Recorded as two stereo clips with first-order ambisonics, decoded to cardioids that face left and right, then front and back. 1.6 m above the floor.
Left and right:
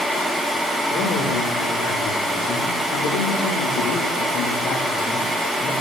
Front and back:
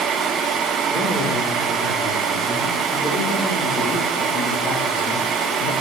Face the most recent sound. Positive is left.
turn(degrees=20)